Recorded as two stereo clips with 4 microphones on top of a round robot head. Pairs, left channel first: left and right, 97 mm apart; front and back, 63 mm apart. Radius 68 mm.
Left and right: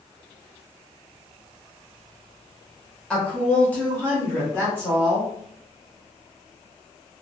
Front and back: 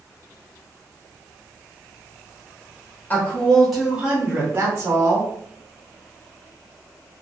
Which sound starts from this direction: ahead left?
A woman speaking, at 3.1 s.